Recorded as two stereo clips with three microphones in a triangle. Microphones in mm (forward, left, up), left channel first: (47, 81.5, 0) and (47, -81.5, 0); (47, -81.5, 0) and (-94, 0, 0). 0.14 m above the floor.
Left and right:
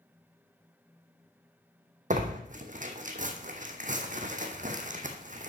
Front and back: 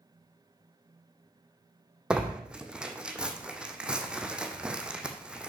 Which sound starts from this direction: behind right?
Tearing paper, at 2.1 s.